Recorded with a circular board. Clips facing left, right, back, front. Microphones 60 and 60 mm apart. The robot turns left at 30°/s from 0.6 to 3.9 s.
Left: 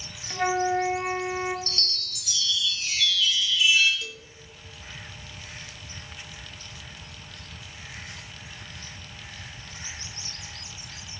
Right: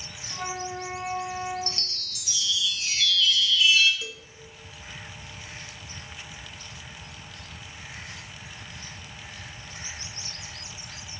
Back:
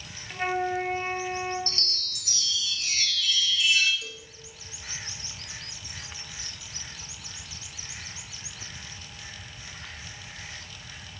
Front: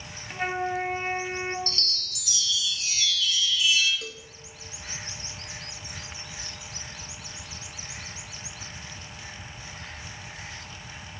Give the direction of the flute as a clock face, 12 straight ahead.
9 o'clock.